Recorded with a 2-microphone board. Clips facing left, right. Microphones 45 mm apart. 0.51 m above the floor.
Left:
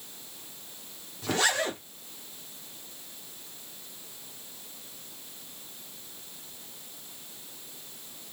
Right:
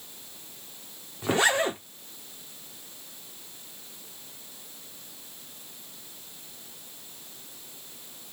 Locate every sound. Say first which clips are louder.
1.2 s a zipper: right 4 dB; 25° right (ahead or behind), 1.0 m